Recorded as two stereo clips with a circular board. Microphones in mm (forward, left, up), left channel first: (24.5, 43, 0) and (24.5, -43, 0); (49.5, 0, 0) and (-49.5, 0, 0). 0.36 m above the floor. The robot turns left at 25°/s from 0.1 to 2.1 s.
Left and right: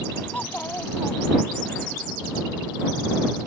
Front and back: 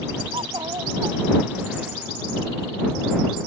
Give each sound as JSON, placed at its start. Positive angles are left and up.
{"t": 0.3, "sound": "a child speaking", "azimuth_deg": 160}